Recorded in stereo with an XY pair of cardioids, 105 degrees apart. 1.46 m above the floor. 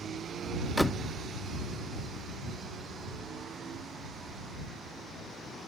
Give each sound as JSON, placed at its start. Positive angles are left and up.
{"t": 0.8, "sound": "a door slam", "azimuth_deg": 0}